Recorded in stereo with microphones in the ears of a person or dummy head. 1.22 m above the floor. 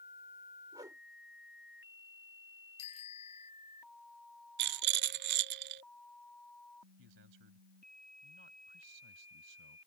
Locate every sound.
0.7 s a whoosh: 20° right (ahead or behind)
2.8 s a bicycle bell: 35° left (ahead or behind)
4.6 s a rattle: 60° right (ahead or behind)
7.0 s a man speaking: 75° right (ahead or behind)